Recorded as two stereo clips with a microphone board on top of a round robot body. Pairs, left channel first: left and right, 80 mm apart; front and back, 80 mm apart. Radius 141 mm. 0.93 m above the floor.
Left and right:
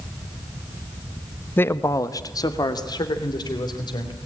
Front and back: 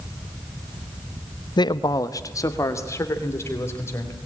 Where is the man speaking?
25° left, 0.9 m; by 4.2 s 60° left, 4.5 m.